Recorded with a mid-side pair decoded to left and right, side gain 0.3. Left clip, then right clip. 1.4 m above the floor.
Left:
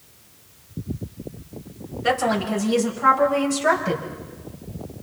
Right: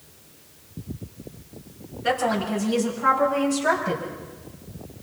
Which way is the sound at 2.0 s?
50° left.